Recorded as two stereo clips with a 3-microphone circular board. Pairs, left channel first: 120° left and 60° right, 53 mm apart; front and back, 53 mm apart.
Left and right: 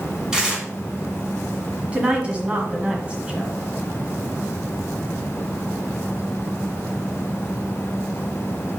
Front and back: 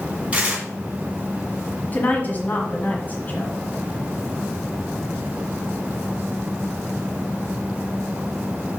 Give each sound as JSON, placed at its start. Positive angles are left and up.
{"t": 0.3, "sound": "tearing paper", "azimuth_deg": -130, "distance_m": 2.0}
{"t": 1.9, "sound": "a woman speaking", "azimuth_deg": -10, "distance_m": 1.4}